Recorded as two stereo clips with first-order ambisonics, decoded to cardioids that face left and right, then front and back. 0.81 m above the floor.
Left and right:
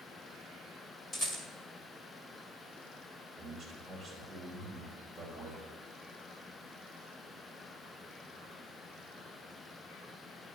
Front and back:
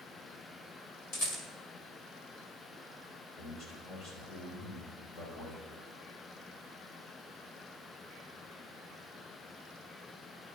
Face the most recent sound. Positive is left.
turn(degrees=-10)